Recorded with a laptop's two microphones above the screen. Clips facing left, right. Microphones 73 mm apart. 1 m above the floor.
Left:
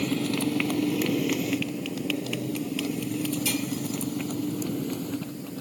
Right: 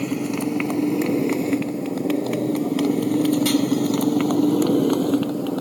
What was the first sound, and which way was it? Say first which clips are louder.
A motorcycle: right 3 dB; 15° right (ahead or behind).